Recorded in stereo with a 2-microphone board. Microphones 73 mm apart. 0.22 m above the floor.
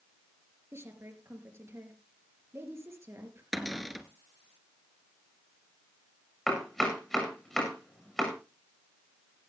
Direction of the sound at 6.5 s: 5° left (ahead or behind).